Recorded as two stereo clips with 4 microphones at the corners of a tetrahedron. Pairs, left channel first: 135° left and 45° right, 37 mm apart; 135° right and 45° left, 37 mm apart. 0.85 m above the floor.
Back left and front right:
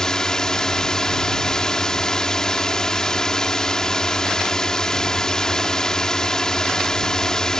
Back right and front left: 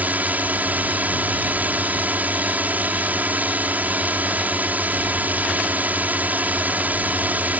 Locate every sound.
0.0 s a drone: 65° left